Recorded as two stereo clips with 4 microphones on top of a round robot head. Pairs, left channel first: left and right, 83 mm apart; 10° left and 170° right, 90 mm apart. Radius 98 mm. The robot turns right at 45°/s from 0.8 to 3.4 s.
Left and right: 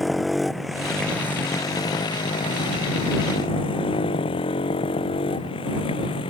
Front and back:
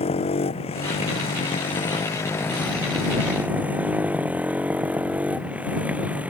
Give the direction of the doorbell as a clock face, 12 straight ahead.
I don't hear a doorbell.